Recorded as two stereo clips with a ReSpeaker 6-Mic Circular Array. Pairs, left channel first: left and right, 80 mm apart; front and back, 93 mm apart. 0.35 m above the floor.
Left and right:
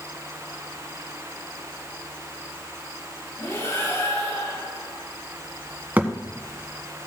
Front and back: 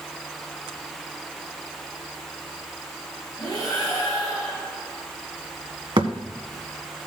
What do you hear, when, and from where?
3.4 s breathing: 45° left, 5.5 m
6.0 s a thud: 155° right, 1.4 m